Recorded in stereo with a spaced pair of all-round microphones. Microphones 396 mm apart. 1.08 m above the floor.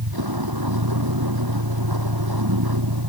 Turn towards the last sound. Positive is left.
turn(degrees=-65)  # may be behind; listen again after turning